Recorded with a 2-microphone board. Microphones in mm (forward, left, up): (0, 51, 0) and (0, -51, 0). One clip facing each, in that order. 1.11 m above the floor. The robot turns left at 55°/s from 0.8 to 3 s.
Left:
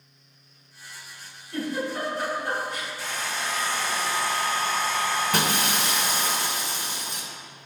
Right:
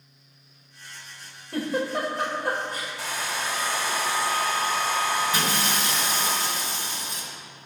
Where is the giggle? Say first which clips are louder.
Right 2 dB; 65° right (ahead or behind), 2.5 m; by 2.9 s 40° right (ahead or behind), 2.5 m.